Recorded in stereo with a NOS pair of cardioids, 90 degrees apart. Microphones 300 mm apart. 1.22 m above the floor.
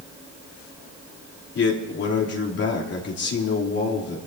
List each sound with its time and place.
1.6 s a man speaking: 55° left, 3.5 m